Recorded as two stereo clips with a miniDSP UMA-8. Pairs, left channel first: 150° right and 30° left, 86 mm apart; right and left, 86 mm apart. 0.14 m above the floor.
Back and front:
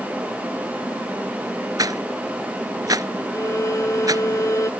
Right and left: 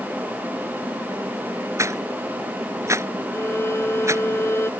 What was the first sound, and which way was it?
A rattle, 50° left.